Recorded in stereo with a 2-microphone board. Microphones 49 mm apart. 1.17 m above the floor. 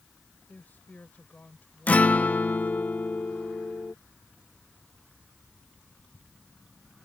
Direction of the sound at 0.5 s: 35° left (ahead or behind).